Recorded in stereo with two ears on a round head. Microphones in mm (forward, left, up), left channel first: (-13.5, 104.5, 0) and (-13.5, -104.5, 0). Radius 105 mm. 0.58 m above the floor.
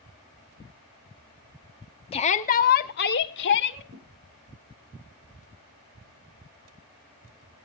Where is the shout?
25° left (ahead or behind), 0.7 m; by 3.8 s 55° left (ahead or behind), 1.3 m.